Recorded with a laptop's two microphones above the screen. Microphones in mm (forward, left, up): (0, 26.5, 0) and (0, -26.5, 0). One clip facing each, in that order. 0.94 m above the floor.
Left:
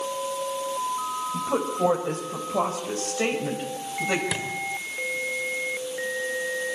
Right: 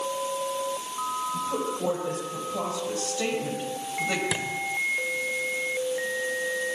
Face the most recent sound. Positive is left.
turn(degrees=-5)  # may be behind; listen again after turning